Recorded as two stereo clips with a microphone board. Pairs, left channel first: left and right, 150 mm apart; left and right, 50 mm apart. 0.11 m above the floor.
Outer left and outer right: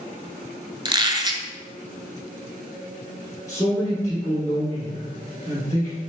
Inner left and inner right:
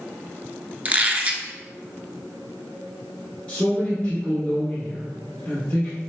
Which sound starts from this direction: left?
A man speaking, at 3.5 s.